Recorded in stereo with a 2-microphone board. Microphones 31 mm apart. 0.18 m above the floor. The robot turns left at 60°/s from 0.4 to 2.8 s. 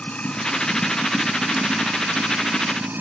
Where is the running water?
35° left; by 3.0 s 105° right.